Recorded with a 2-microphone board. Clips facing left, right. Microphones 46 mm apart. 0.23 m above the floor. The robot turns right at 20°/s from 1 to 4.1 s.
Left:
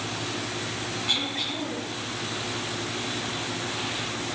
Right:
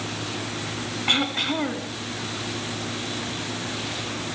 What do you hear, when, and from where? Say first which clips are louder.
1.1 s throat clearing: right 8 dB; 50° right (ahead or behind), 1.7 m; by 1.9 s 60° right (ahead or behind), 1.7 m